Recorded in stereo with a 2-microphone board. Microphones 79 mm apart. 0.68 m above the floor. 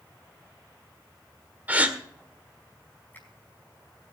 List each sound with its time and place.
1.7 s a gasp: 20° right (ahead or behind), 1.6 m
3.1 s a finger snap: 25° left (ahead or behind), 5 m